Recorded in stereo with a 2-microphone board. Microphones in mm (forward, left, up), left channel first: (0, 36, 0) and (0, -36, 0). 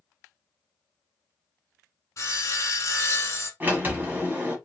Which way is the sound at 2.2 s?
45° left (ahead or behind).